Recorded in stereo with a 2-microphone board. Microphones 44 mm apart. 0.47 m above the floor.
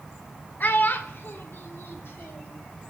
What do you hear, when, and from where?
0.6 s a child speaking: 45° left (ahead or behind), 0.6 m; by 2.5 s 60° left (ahead or behind), 1.4 m